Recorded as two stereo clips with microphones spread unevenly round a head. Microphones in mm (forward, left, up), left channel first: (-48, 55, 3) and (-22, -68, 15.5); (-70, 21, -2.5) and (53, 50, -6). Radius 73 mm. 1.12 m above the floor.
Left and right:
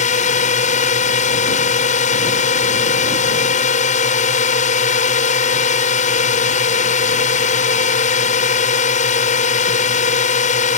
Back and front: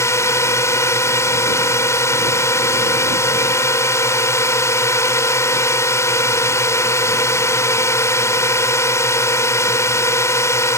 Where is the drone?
125° left.